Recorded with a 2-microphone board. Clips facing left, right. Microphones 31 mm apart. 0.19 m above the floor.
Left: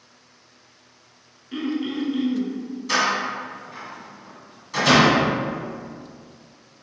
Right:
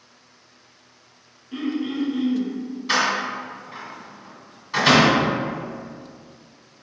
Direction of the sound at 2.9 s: 30° right (ahead or behind).